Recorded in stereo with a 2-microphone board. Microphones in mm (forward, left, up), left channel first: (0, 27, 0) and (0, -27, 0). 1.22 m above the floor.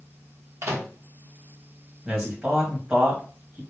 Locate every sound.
0.6 s a microwave: 50° right (ahead or behind), 0.7 m
2.0 s a man speaking: 20° right (ahead or behind), 1.2 m